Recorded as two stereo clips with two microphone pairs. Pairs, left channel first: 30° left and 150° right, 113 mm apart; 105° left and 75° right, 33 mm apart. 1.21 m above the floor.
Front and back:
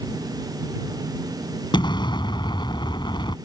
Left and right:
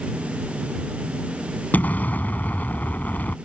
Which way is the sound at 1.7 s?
80° left.